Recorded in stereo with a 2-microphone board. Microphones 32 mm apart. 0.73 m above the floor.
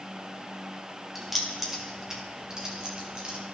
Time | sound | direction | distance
1.1 | keys jangling | centre (ahead or behind) | 1.6 m